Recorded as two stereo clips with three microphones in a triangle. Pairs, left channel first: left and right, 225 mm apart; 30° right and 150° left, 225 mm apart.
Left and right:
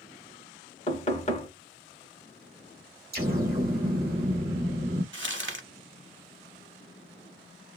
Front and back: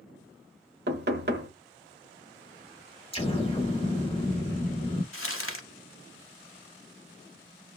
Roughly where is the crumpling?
Ahead right.